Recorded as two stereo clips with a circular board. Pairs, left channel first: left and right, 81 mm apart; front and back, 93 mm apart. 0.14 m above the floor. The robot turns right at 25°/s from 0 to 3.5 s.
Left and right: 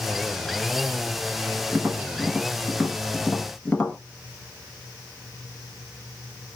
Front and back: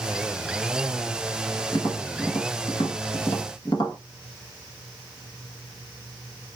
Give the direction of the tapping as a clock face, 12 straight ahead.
1 o'clock.